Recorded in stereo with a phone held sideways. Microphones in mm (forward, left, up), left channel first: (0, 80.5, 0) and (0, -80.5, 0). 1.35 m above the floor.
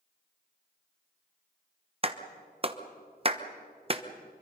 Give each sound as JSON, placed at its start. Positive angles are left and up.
{"t": 2.0, "sound": "a clap", "side_deg": -35, "distance_m": 1.0}